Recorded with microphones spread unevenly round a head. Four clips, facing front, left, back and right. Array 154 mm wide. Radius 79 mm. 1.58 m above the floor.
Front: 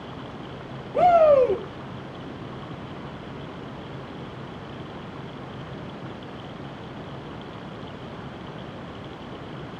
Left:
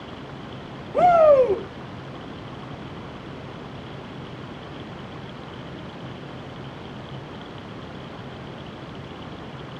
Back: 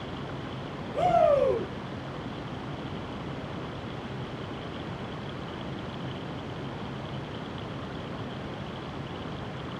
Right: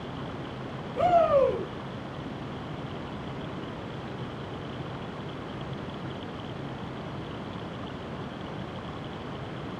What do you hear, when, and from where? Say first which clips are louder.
0.9 s a shout: left 7 dB, front 6 dB; 65° left, 6.5 m